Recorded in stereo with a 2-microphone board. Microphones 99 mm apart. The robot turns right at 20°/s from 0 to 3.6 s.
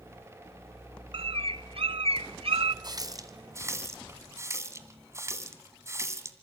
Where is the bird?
110° right, 1.0 m; by 2.7 s 75° right, 1.0 m.